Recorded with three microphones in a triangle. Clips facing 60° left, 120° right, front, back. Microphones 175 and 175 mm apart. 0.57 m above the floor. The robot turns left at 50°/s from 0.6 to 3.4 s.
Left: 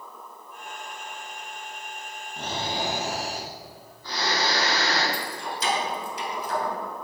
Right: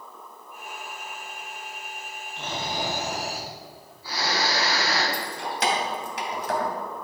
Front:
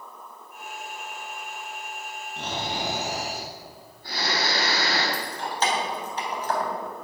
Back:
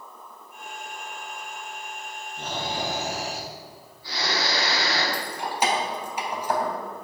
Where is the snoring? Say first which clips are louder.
Left 1 dB, even; 15° left, 4 m; by 5.0 s 40° right, 4 m.